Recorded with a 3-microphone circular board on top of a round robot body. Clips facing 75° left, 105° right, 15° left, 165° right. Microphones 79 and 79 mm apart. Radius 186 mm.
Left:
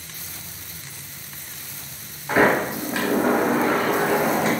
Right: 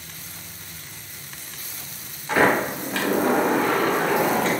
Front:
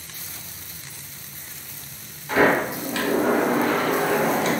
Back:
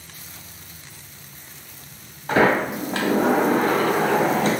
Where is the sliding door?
150° left, 0.8 m.